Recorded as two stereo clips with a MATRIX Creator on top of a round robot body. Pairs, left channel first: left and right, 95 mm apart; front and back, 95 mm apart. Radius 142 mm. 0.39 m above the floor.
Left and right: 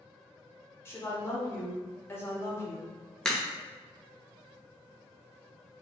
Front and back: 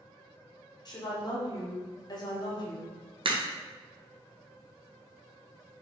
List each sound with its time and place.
0.8 s a woman speaking: 30° left, 1.5 m
3.2 s a crack: 170° left, 0.8 m